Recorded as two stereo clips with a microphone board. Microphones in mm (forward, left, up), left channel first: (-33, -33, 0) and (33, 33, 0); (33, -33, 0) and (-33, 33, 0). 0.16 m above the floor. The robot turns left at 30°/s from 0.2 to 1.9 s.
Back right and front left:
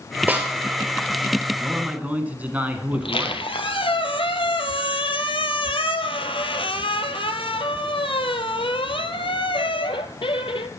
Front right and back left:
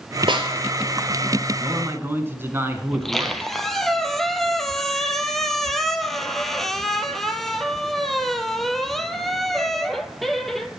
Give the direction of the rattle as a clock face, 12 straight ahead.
No rattle in this recording.